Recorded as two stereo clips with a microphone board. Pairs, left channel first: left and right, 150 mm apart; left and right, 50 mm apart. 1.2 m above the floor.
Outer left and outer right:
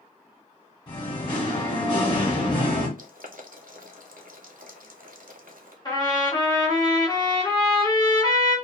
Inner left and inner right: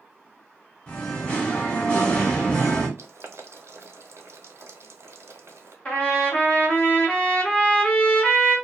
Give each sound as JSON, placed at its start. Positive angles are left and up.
{"t": 0.9, "sound": "singing", "side_deg": 30, "distance_m": 1.1}
{"t": 3.0, "sound": "boiling", "side_deg": -65, "distance_m": 0.5}
{"t": 5.8, "sound": "a trumpet", "side_deg": 25, "distance_m": 0.9}